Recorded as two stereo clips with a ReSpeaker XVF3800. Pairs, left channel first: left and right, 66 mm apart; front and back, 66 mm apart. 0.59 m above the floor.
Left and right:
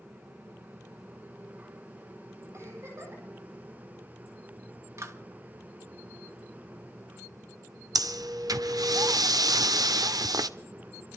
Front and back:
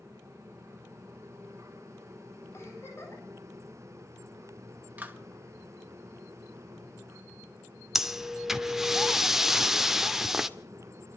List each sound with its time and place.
2.5 s a giggle: 40° right, 8 m
5.0 s a clap: 120° right, 1.6 m
8.0 s breathing: 95° right, 0.6 m